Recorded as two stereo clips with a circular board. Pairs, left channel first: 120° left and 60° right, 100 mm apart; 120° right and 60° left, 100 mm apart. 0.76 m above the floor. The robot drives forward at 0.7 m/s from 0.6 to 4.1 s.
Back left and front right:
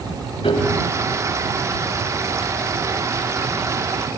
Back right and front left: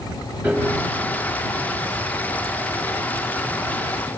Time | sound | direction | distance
0.4 | a piano | 130° left | 7 m